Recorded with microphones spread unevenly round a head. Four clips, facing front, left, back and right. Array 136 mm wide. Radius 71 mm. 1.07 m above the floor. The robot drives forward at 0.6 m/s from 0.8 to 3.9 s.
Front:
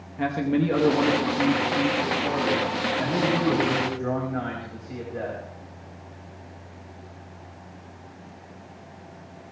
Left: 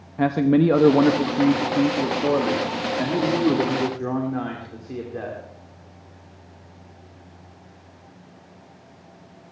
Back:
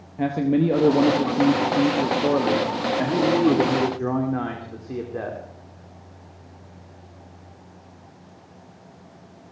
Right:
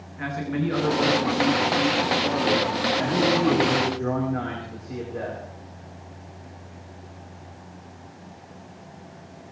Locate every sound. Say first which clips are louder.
0.2 s a man speaking: left 10 dB, back 3 dB; 115° left, 0.9 m; by 5.4 s 160° left, 2.5 m